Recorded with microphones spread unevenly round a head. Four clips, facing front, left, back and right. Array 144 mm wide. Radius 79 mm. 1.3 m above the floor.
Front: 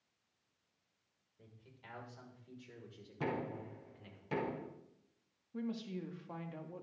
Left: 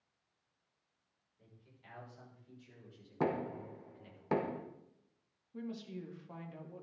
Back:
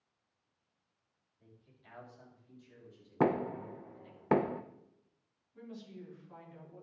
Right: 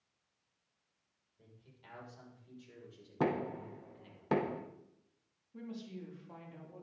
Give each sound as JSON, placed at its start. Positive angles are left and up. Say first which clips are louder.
{"t": 1.4, "sound": "a man speaking", "louder": "right 2 dB, front 3 dB", "azimuth_deg": -20, "distance_m": 6.0}
{"t": 3.2, "sound": "knocking", "louder": "right 1 dB, back 9 dB", "azimuth_deg": -175, "distance_m": 0.9}
{"t": 5.5, "sound": "a woman speaking", "louder": "left 2 dB, front 7 dB", "azimuth_deg": 5, "distance_m": 2.5}